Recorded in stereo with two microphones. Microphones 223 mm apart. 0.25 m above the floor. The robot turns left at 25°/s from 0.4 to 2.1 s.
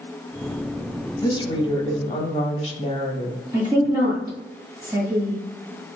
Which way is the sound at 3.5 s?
20° right (ahead or behind).